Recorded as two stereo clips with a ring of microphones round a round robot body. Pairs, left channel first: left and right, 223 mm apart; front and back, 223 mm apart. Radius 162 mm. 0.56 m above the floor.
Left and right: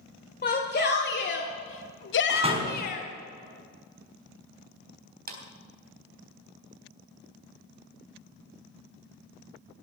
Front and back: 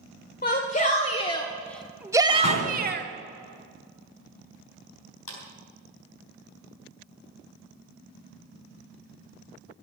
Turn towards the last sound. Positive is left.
turn(degrees=-40)